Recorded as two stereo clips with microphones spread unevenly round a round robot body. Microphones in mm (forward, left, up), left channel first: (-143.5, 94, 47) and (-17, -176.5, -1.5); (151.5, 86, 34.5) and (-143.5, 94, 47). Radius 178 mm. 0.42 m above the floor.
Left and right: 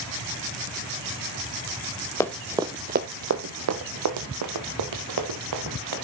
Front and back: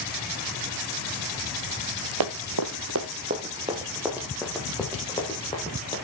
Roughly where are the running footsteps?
Behind.